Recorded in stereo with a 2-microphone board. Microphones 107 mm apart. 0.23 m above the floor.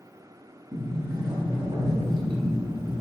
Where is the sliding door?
45° right (ahead or behind), 0.7 m.